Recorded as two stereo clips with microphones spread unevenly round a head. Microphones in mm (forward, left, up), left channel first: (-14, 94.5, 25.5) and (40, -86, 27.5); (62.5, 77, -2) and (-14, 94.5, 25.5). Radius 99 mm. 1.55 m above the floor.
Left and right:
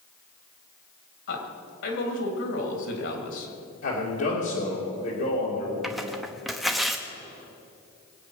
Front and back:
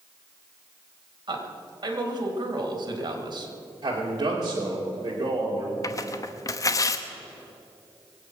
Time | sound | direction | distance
1.3 | a man speaking | 135° left | 3 m
3.8 | a man speaking | 130° left | 3 m
5.8 | tearing paper | 15° left | 0.9 m